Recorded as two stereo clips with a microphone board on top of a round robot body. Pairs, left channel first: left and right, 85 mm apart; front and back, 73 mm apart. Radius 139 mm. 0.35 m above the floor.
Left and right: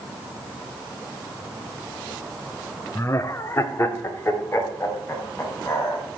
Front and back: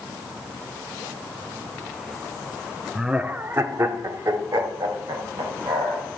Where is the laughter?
100° left, 0.9 m; by 6.0 s 150° left, 4 m.